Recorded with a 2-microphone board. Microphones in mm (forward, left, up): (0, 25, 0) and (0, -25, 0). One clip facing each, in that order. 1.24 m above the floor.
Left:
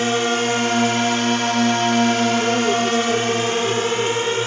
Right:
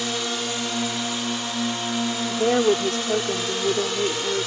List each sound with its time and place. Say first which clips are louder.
0.0 s a drone: left 8 dB; 50° left (ahead or behind); by 4.5 s 40° left (ahead or behind)
2.3 s a woman speaking: left 1 dB; 50° right (ahead or behind)